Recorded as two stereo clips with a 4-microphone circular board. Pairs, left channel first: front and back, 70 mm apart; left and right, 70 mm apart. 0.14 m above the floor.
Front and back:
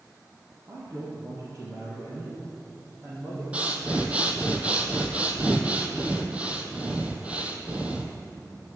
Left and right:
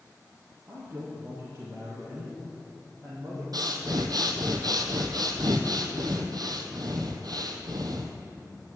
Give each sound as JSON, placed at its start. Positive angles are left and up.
{"t": 0.7, "sound": "a man speaking", "azimuth_deg": -150, "distance_m": 3.5}
{"t": 3.5, "sound": "breathing", "azimuth_deg": -110, "distance_m": 1.1}